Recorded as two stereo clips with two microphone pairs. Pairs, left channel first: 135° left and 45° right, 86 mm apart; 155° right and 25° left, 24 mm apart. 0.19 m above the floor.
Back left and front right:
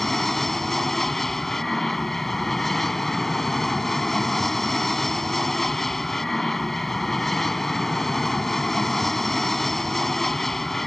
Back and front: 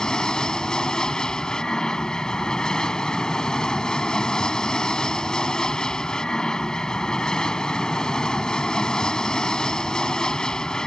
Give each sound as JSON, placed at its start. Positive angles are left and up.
{"t": 0.0, "sound": "an aircraft", "azimuth_deg": -145}